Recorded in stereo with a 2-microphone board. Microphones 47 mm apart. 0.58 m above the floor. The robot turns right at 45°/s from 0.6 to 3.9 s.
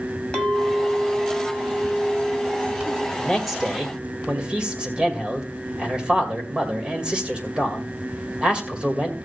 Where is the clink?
160° left, 1.8 m; by 3.1 s 85° right, 1.8 m.